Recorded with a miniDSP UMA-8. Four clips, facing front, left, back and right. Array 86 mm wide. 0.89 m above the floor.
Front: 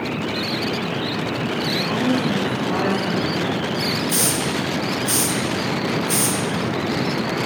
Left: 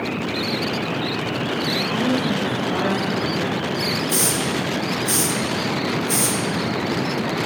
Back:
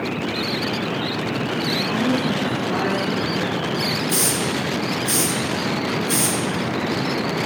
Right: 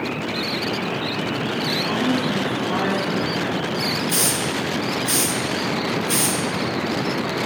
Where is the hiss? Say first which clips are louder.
Left 1 dB, even; 90° right, 1.3 m.